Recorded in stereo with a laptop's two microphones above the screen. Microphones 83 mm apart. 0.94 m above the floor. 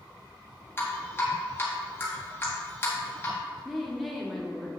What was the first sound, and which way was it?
Dripping, 25° left (ahead or behind).